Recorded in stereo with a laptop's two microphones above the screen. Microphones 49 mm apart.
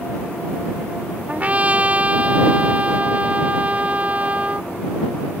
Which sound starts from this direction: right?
A trumpet, at 1.3 s.